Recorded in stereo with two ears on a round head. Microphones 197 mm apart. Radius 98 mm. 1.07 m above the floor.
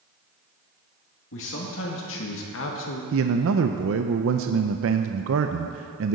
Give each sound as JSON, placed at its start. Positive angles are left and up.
{"t": 1.3, "sound": "a man speaking", "side_deg": 60, "distance_m": 2.0}
{"t": 3.1, "sound": "a man speaking", "side_deg": -60, "distance_m": 0.5}